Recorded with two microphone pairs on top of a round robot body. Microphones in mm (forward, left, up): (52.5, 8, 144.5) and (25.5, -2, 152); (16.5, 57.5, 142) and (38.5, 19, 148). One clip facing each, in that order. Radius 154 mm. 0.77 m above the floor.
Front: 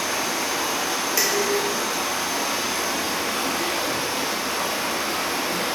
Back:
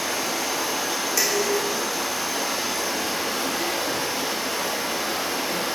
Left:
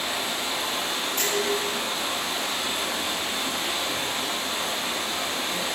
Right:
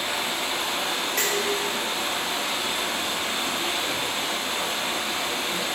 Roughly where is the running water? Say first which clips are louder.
Front 1 dB, right 1 dB; ahead right.